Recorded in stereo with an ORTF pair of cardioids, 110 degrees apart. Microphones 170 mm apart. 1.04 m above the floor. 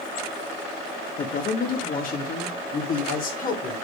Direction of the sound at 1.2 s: 55° left.